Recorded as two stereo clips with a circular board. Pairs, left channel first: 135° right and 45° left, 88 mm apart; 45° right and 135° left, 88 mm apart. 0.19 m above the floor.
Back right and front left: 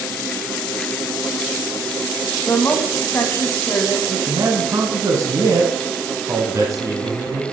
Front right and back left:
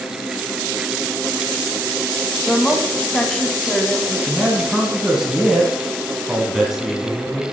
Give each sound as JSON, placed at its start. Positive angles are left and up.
{"t": 2.5, "sound": "a woman speaking", "azimuth_deg": -125, "distance_m": 1.1}
{"t": 4.1, "sound": "a man speaking", "azimuth_deg": 55, "distance_m": 1.3}